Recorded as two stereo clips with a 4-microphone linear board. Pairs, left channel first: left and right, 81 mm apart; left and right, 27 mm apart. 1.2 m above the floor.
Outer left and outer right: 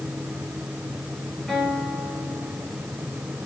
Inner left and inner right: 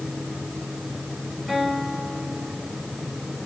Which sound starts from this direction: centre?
A guitar, at 1.5 s.